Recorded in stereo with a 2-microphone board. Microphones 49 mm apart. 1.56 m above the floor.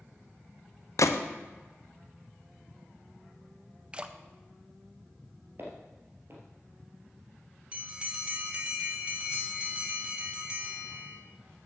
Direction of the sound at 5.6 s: 50° right (ahead or behind).